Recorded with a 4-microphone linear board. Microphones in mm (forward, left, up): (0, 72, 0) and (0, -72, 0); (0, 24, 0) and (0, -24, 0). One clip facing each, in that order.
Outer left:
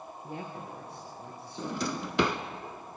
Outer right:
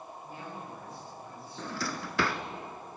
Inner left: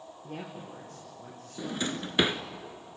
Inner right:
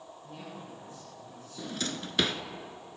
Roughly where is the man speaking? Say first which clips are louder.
Outer left 4 dB, inner left 4 dB; left.